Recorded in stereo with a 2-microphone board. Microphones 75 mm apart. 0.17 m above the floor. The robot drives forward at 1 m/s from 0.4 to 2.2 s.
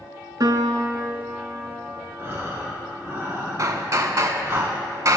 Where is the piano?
55° right (ahead or behind), 0.7 m; by 2.1 s 20° right (ahead or behind), 1.6 m.